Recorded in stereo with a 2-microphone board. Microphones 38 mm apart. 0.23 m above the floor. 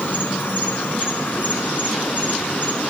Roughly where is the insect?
Left.